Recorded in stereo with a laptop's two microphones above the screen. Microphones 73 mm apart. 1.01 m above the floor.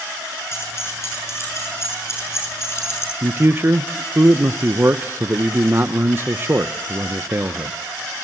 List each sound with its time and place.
0.5 s keys jangling: 35° left (ahead or behind), 8 m
3.2 s a man speaking: 35° right (ahead or behind), 0.5 m